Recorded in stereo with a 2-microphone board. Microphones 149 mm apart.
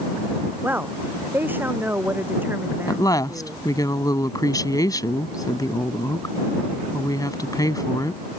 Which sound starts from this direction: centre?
A woman speaking, at 0.6 s.